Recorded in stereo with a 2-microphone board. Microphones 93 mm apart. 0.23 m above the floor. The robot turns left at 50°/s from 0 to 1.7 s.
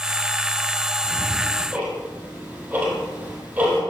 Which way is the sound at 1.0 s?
15° left (ahead or behind).